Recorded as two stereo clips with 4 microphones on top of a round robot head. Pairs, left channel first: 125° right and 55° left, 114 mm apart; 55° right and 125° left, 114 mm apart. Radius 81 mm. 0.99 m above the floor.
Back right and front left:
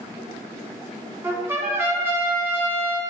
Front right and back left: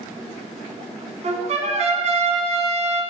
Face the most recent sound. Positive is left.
turn(degrees=125)